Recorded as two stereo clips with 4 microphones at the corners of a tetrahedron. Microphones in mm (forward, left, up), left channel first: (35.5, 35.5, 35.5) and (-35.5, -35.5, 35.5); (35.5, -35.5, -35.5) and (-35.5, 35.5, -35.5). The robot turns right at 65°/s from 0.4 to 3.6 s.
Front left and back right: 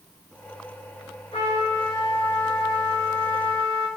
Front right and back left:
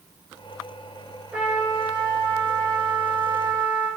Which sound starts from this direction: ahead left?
A trumpet, at 1.3 s.